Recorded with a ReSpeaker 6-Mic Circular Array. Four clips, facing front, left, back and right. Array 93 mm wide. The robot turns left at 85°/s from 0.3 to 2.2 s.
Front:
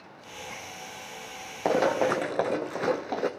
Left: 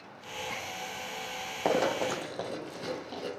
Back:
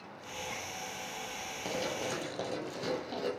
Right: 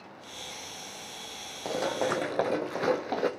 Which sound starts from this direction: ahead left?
Running footsteps, at 1.6 s.